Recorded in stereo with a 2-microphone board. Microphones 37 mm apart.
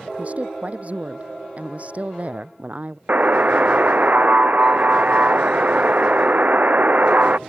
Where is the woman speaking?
40° right (ahead or behind).